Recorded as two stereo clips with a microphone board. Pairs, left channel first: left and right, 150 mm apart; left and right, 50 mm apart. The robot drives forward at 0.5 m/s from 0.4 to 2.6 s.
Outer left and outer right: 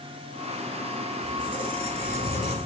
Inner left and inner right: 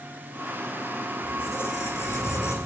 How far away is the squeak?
About 1.4 m.